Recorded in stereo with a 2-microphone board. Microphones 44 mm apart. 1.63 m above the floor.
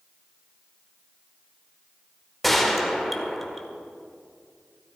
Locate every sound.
2.4 s a gunshot: 5° left (ahead or behind), 1.5 m